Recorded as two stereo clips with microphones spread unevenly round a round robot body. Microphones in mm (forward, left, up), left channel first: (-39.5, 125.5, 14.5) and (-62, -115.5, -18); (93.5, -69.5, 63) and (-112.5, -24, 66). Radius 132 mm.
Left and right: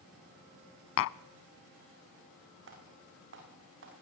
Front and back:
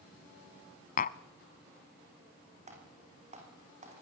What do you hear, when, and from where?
1.0 s tapping: 45° left, 0.5 m
2.7 s typing on a keyboard: 135° right, 8 m